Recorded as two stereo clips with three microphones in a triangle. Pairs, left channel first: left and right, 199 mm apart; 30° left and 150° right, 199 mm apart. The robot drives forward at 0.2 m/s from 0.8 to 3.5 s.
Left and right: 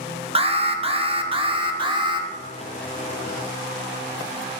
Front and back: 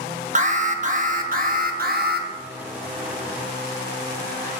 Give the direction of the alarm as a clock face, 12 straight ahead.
4 o'clock.